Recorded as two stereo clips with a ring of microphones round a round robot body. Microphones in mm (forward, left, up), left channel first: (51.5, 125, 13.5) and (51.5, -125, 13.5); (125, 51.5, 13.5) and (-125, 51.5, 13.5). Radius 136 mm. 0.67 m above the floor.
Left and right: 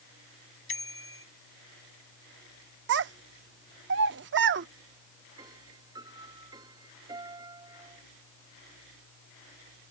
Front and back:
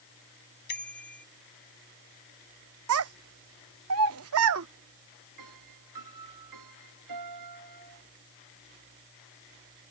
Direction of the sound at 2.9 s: 140° right.